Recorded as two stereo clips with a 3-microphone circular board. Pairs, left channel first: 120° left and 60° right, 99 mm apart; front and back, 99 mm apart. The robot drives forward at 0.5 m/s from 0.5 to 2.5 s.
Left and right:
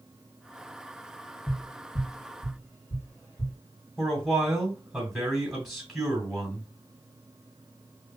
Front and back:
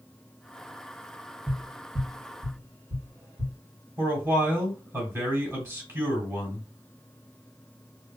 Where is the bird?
I don't hear a bird.